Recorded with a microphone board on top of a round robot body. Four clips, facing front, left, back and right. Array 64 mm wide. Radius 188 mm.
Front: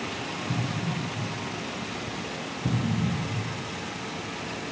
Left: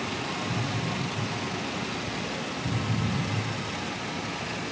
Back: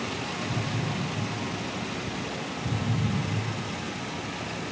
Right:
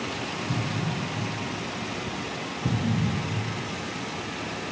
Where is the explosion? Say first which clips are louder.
Right 1 dB, front 2 dB; 45° right, 3.5 m.